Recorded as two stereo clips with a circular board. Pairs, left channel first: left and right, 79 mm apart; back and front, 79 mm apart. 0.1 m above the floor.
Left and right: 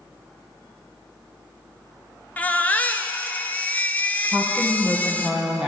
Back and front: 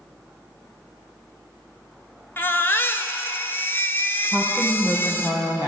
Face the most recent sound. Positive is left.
turn(degrees=-175)